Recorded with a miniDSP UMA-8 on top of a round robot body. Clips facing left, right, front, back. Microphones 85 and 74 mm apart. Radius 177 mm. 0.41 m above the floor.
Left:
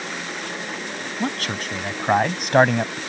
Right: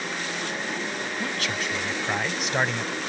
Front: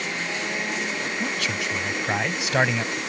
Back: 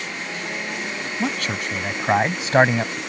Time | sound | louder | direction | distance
1.2 | a man speaking | left 5 dB, back 6 dB | 135° left | ?